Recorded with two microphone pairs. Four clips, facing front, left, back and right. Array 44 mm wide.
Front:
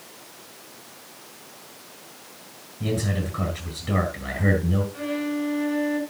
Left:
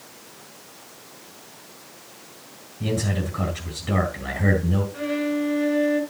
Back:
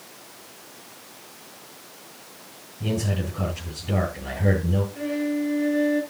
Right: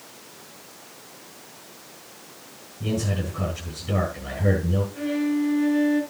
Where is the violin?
50° left, 7 m.